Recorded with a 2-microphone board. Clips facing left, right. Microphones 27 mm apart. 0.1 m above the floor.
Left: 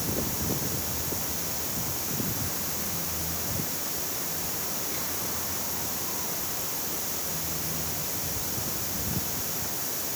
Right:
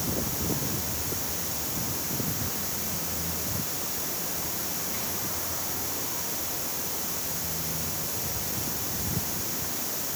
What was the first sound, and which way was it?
Only background noise.